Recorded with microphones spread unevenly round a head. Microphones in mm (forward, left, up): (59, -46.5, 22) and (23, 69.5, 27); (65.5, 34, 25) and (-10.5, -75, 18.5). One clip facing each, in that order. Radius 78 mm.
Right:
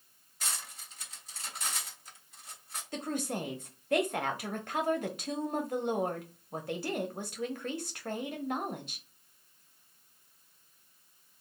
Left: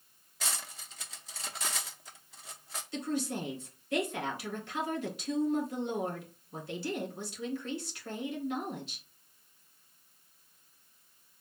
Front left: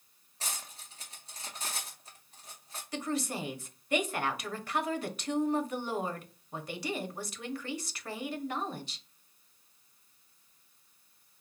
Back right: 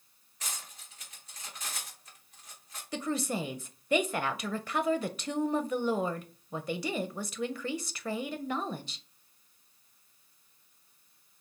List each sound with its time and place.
0.4 s cutlery clinking: 115° left, 0.6 m
2.9 s a woman speaking: 130° right, 0.6 m